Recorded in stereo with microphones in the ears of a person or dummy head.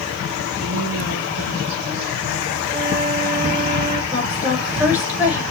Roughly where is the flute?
Right.